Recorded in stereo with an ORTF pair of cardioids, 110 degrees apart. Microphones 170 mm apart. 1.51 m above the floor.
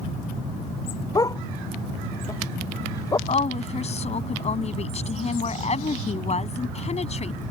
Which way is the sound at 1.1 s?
20° left.